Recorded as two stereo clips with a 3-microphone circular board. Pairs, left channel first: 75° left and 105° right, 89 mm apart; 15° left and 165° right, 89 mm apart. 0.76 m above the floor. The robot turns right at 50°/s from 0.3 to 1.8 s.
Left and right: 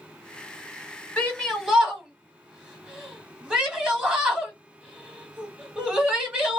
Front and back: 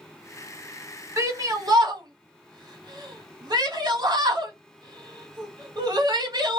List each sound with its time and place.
1.2 s a shout: 150° left, 1.6 m; by 6.6 s straight behind, 1.6 m